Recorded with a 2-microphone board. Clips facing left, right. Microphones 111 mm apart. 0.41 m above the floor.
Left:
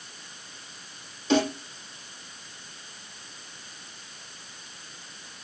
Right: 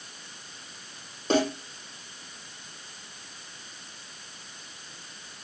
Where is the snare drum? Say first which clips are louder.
Left 1 dB; 50° right (ahead or behind), 5.5 m.